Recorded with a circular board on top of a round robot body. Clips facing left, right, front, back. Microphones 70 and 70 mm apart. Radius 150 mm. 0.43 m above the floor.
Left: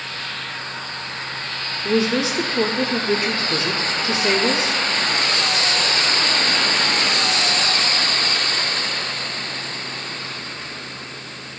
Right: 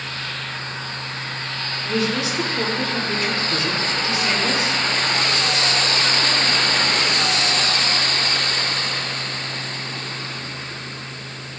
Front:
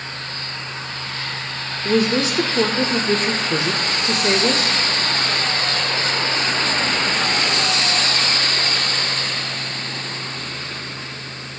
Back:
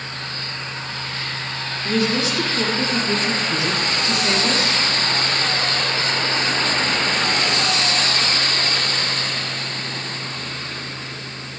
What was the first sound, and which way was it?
A woman speaking, 30° left.